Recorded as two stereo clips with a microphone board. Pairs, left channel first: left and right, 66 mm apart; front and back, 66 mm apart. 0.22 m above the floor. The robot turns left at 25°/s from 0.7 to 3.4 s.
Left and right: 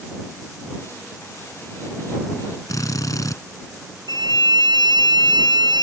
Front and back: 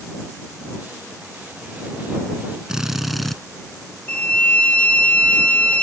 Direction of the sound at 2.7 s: 100° left.